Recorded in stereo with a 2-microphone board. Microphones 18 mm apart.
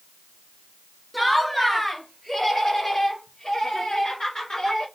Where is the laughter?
Centre (ahead or behind), 1.7 m; by 4.8 s 55° left (ahead or behind), 3 m.